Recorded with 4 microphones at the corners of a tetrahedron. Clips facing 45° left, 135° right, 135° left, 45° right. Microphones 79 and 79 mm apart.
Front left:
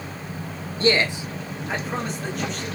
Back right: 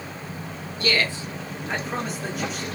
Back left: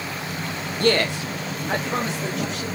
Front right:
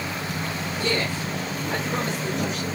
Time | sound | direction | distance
0.8 | a man speaking | 105° left | 0.5 m